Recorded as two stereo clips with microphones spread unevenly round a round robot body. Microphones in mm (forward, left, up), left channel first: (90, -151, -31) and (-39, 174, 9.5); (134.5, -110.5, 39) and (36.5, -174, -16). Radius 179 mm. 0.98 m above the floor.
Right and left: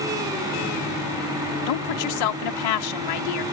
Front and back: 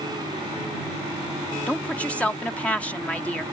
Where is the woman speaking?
55° right.